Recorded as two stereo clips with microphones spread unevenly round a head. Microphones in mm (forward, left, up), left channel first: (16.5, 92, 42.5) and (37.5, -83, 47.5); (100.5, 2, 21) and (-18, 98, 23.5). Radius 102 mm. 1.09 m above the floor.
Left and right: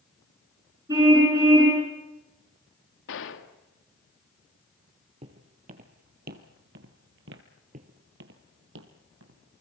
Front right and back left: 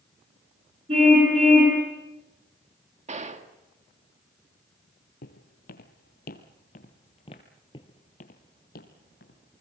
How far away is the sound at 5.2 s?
About 2 m.